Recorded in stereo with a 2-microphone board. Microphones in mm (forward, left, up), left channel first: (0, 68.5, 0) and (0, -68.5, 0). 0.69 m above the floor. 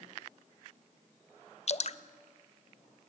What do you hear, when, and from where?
1.7 s dripping: 55° left (ahead or behind), 0.6 m